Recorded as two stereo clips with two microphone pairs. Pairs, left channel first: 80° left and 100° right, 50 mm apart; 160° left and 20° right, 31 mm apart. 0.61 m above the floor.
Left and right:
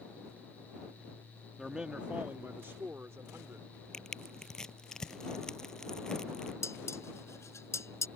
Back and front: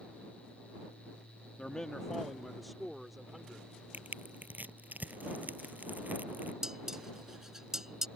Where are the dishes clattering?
50° left.